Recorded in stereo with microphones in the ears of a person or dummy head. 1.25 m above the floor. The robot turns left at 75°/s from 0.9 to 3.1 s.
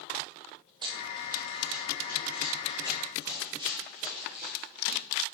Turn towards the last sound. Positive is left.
turn(degrees=-45)  # may be behind; listen again after turning